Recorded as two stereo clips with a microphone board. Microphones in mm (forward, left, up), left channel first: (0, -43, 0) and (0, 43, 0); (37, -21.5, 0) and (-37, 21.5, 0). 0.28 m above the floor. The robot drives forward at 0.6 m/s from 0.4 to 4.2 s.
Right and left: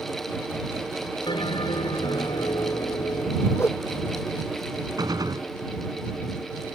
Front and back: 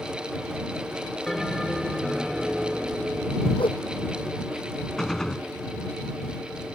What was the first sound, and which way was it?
A bell, 115° right.